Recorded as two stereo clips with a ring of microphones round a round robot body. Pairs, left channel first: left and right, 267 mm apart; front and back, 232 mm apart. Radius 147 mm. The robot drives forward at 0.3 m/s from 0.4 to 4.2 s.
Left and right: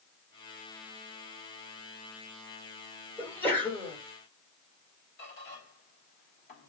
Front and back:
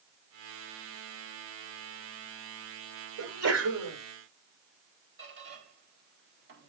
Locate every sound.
3.2 s a sneeze: 175° left, 3.5 m
5.2 s a squeak: 140° left, 3.5 m